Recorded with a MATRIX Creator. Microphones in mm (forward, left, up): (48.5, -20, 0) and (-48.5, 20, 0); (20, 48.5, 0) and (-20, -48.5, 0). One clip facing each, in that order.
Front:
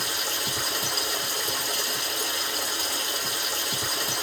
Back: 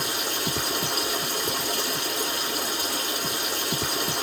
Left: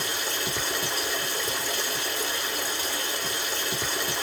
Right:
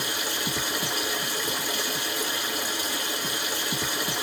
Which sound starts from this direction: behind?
Running water, at 0.0 s.